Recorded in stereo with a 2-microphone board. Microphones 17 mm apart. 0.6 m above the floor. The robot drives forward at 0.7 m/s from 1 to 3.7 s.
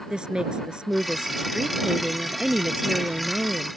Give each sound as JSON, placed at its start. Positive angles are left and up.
{"t": 0.1, "sound": "a woman speaking", "side_deg": -55}